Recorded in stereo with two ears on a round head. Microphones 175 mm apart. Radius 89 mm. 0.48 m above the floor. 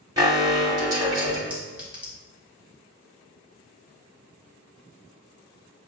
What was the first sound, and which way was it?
An alarm, 20° right (ahead or behind).